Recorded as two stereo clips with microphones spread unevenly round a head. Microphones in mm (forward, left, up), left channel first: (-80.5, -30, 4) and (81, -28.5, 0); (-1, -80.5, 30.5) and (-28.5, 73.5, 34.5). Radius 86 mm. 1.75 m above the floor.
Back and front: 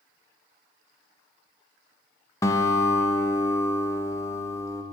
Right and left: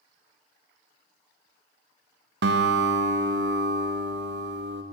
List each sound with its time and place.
2.4 s a guitar: 110° left, 0.6 m